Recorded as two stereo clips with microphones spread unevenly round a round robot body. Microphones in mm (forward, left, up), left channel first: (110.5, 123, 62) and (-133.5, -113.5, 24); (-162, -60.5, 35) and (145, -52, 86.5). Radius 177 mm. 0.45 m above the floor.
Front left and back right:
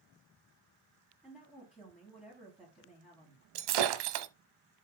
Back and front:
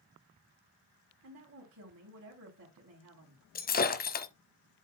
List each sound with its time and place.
1.2 s a woman speaking: 50° right, 3.5 m
3.5 s breaking glass: 115° right, 1.2 m